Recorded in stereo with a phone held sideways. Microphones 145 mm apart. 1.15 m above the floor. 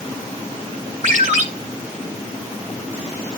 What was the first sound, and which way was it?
A ringtone, 60° right (ahead or behind).